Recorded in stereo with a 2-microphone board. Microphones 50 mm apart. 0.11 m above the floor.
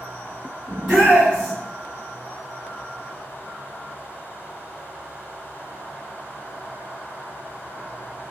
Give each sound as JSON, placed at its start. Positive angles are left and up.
{"t": 0.7, "sound": "a shout", "side_deg": -10, "distance_m": 1.8}